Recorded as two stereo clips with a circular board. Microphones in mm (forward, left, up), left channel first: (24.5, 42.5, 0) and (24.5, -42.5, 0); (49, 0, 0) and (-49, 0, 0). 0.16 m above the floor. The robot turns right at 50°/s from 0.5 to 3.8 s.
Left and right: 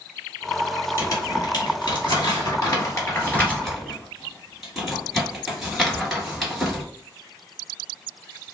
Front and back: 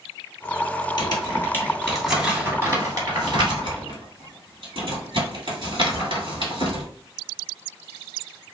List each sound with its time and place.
1.0 s crumpling: 40° left, 1.9 m; by 6.8 s straight behind, 1.9 m